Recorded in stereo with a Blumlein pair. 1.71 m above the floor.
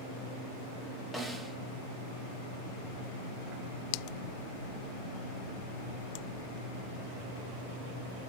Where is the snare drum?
Straight ahead, 0.6 m.